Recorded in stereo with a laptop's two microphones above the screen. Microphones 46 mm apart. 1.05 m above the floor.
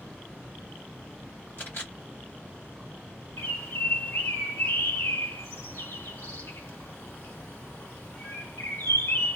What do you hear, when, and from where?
1.6 s a camera shutter: 50° left (ahead or behind), 1.4 m
3.4 s a bird: 70° left (ahead or behind), 1.2 m